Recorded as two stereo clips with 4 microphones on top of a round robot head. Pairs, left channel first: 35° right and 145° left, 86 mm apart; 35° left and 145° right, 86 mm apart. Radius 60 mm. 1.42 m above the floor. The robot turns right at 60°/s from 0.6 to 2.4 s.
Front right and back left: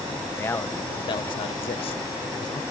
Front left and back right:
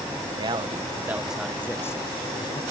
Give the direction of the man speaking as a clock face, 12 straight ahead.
3 o'clock.